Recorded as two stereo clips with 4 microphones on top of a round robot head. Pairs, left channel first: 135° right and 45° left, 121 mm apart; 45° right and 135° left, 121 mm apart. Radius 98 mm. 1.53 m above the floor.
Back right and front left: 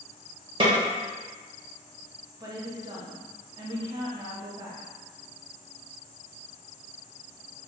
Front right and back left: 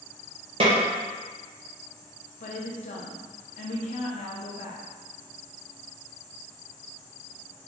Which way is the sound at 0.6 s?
90° left.